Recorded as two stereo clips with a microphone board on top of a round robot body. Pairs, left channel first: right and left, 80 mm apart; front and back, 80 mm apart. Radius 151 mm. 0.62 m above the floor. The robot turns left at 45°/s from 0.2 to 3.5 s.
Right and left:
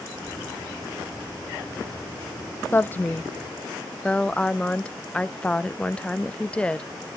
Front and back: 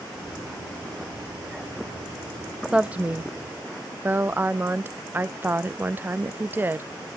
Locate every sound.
2.7 s a woman speaking: 115° right, 0.6 m; by 6.9 s 150° right, 0.6 m